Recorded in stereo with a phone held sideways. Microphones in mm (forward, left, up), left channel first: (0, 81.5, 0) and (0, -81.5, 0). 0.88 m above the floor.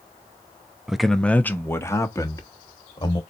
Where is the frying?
I don't hear frying.